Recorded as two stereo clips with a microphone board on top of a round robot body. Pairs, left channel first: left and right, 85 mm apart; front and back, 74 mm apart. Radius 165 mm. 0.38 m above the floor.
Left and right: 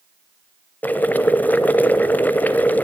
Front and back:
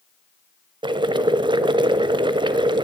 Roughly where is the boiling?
Behind.